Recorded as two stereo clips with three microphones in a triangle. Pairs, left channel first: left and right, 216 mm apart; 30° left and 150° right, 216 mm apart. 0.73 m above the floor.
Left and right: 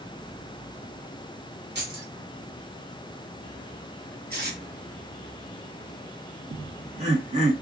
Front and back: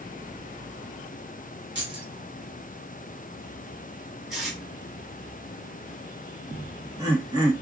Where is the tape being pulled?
60° right, 1.7 m.